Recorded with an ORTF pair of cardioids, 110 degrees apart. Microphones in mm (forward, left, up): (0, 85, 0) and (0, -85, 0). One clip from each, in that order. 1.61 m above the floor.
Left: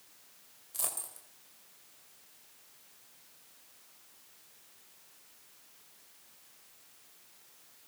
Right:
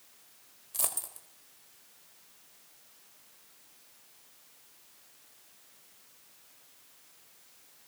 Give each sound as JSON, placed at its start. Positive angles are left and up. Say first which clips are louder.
{"t": 0.7, "sound": "a dropped coin", "louder": "right 3 dB", "azimuth_deg": -25, "distance_m": 4.0}